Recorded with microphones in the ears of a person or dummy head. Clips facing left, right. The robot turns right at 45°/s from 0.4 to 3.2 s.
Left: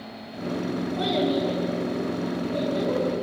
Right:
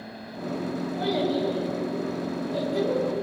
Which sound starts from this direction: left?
A child speaking, at 1.0 s.